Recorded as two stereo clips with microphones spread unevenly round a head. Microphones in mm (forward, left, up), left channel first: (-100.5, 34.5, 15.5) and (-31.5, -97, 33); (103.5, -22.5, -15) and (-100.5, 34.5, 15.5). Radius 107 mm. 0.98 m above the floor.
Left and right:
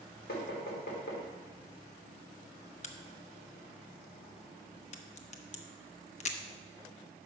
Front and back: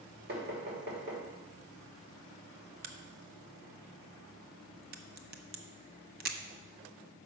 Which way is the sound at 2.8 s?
120° left.